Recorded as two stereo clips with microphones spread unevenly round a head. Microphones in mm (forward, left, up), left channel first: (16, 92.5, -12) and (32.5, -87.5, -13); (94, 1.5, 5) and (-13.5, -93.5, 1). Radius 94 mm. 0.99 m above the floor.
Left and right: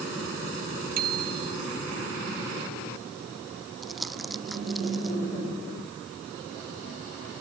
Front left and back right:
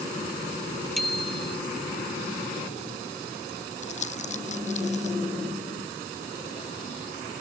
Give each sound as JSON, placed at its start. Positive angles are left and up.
{"t": 1.0, "sound": "a bicycle bell", "azimuth_deg": -50}
{"t": 3.8, "sound": "crumpling", "azimuth_deg": 5}